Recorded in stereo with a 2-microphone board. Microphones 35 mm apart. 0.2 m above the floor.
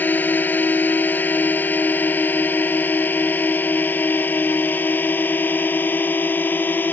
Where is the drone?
70° left (ahead or behind); by 6.9 s 75° left (ahead or behind).